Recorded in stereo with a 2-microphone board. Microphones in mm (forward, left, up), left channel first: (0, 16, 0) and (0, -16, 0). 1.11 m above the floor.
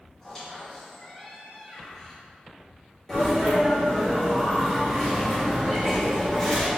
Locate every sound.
0.2 s a squeak: 15° left (ahead or behind), 1.9 m
3.1 s a sneeze: 15° left (ahead or behind), 1.5 m